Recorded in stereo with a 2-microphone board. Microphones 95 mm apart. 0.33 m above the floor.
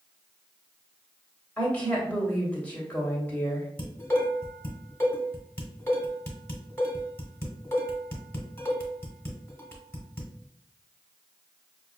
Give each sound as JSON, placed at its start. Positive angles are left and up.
{"t": 1.6, "sound": "a woman speaking", "side_deg": 15, "distance_m": 1.6}
{"t": 3.8, "sound": "dishes clattering", "side_deg": 25, "distance_m": 1.4}